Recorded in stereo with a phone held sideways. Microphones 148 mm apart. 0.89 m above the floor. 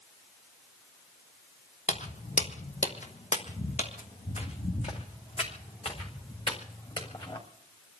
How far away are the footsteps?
About 1.5 m.